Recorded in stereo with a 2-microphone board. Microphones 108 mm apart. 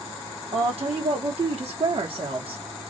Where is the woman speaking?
70° right (ahead or behind), 1.7 m; by 2.6 s 60° right (ahead or behind), 1.6 m.